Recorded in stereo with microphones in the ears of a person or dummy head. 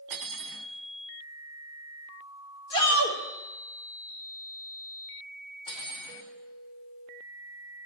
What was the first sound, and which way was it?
Cutlery clinking, 70° right (ahead or behind).